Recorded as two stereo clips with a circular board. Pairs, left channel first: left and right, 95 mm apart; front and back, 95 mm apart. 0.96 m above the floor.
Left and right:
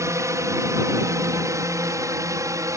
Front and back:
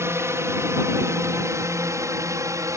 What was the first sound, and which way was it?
A drone, 130° right.